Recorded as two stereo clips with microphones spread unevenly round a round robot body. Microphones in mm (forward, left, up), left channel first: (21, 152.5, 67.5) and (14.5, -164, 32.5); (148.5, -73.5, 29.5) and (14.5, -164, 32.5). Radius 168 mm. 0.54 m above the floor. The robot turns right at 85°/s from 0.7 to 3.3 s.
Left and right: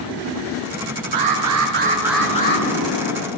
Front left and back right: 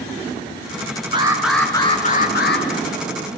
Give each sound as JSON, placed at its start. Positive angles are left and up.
{"t": 1.1, "sound": "an alarm", "azimuth_deg": -85, "distance_m": 7.0}